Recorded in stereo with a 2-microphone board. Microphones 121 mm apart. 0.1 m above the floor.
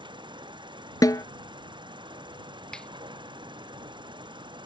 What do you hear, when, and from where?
0.0 s an insect: 45° right (ahead or behind)
1.0 s a snare drum: 35° left (ahead or behind)
2.7 s a finger snap: 5° left (ahead or behind)